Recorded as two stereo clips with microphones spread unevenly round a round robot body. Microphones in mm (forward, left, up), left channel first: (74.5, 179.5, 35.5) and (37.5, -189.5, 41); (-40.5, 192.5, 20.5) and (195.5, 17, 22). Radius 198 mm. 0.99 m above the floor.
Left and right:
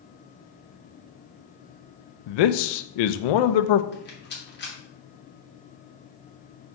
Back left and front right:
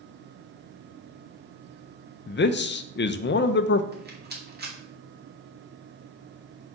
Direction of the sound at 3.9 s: 20° left.